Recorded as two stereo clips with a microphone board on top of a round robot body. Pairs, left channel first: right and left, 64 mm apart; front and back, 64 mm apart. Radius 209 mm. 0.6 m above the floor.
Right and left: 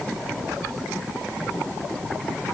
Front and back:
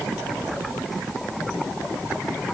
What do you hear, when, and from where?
Only background noise.